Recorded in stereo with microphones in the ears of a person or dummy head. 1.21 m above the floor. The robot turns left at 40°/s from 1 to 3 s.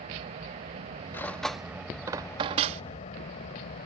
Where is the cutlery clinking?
15° left (ahead or behind); by 2.8 s 40° right (ahead or behind).